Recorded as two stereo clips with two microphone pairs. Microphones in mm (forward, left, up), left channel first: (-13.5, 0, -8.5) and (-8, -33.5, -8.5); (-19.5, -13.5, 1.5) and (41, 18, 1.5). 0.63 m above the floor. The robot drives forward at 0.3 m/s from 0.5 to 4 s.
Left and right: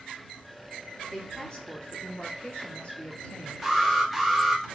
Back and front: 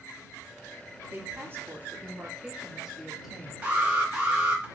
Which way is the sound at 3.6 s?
5° right.